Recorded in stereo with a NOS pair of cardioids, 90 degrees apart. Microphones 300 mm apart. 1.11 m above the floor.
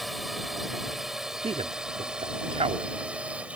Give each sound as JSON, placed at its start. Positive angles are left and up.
{"t": 0.0, "sound": "a drone", "azimuth_deg": 0}
{"t": 1.4, "sound": "a man speaking", "azimuth_deg": -20}